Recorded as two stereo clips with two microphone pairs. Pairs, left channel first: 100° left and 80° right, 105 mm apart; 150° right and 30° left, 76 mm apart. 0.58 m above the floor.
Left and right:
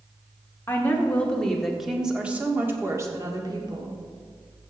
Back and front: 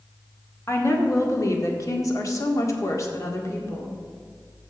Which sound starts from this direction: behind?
A woman speaking, at 0.7 s.